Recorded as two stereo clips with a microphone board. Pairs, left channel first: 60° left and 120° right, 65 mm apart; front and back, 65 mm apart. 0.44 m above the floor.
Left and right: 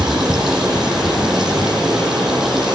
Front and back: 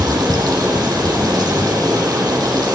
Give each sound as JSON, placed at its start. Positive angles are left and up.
{"t": 0.0, "sound": "running water", "azimuth_deg": 155, "distance_m": 8.5}